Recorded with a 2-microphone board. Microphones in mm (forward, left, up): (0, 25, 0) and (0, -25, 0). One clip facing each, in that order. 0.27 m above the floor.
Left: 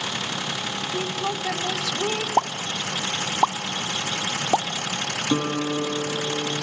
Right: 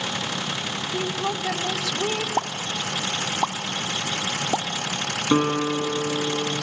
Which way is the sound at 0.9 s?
5° right (ahead or behind).